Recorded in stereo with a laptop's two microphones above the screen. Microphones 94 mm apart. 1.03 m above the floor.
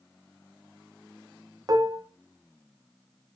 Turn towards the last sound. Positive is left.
turn(degrees=-40)  # may be behind; listen again after turning